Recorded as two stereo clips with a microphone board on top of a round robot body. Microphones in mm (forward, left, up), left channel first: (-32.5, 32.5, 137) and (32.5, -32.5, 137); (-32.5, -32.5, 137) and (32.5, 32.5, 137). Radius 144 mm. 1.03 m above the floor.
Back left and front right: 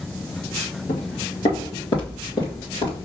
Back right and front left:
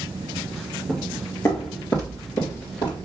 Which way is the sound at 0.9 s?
145° left.